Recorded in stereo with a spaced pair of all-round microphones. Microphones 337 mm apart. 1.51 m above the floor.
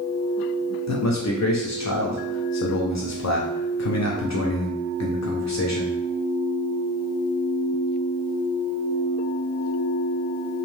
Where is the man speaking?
55° left (ahead or behind), 0.5 m.